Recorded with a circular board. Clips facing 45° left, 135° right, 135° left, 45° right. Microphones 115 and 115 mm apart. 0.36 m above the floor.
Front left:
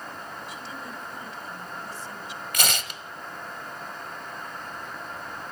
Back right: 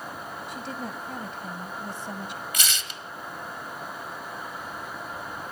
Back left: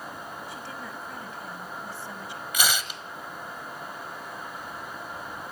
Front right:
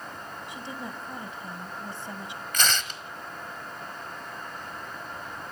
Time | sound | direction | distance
0.5 | a woman speaking | 110° right | 2 m
2.5 | tearing paper | 55° left | 1.4 m